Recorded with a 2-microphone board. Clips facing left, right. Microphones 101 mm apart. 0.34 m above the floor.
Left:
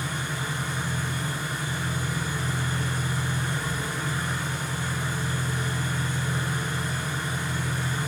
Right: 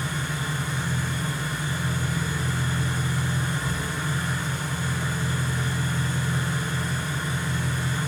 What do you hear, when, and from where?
0.0 s an engine running: 15° left (ahead or behind), 0.9 m